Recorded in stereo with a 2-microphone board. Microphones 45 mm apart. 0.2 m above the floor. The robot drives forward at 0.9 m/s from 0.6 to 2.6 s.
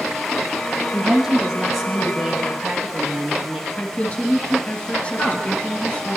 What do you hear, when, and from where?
0.9 s a woman speaking: 10° right (ahead or behind), 1.5 m; by 3.7 s 5° right (ahead or behind), 2.5 m
3.8 s a woman speaking: 35° left (ahead or behind), 2.5 m
5.2 s a woman speaking: 50° left (ahead or behind), 4 m